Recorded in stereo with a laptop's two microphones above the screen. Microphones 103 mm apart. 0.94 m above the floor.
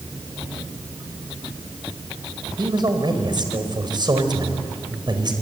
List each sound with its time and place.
2.6 s a man speaking: 45° right (ahead or behind), 4.5 m